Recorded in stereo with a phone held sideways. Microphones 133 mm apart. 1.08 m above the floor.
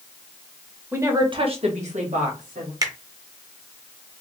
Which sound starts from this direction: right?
A finger snap, at 2.8 s.